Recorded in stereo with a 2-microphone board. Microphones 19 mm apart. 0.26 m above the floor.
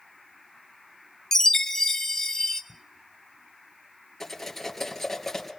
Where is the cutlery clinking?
15° left (ahead or behind), 2.5 m.